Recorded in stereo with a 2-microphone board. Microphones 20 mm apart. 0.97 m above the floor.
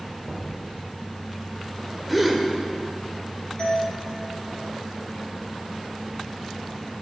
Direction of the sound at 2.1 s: Centre (ahead or behind).